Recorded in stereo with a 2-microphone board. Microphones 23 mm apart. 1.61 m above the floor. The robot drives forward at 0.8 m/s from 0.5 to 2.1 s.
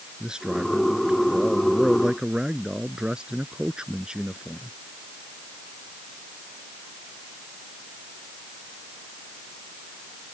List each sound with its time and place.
0.2 s a man speaking: 40° right (ahead or behind)